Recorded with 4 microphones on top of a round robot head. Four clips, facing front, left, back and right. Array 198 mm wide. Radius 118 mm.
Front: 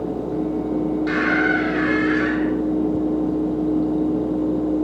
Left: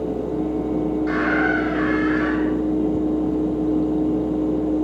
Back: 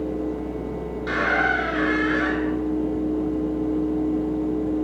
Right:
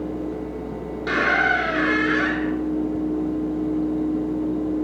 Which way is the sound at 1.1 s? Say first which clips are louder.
Right 4 dB, back 1 dB; 85° right.